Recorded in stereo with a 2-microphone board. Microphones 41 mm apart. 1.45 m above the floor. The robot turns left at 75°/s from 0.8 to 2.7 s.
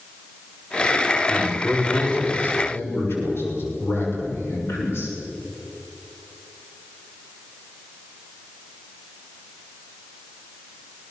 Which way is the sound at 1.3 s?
155° right.